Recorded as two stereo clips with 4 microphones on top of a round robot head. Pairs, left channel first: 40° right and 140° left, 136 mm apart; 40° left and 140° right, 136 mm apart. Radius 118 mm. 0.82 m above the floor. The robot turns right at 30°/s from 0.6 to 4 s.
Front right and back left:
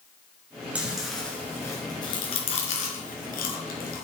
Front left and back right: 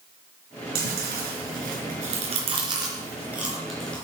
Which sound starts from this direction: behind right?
Chewing, at 0.8 s.